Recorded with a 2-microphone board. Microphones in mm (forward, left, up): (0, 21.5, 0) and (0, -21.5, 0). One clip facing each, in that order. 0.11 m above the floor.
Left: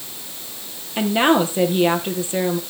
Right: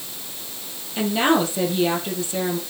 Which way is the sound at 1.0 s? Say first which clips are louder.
Left 3 dB; 30° left (ahead or behind).